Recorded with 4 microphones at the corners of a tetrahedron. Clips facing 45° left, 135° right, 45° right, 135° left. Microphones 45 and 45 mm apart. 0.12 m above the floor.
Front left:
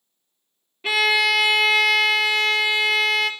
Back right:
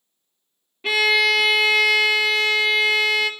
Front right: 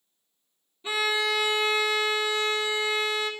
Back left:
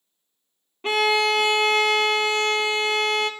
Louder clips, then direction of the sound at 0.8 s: Back right 1 dB, back left 6 dB; 135° left.